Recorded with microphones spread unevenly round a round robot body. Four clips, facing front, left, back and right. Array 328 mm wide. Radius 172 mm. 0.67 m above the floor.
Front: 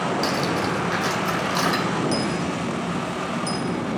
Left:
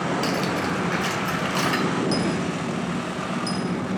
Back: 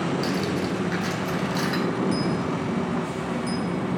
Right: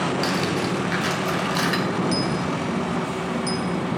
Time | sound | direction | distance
0.2 | cutlery clinking | 5° left | 1.9 m
2.1 | a dropped coin | 15° left | 1.3 m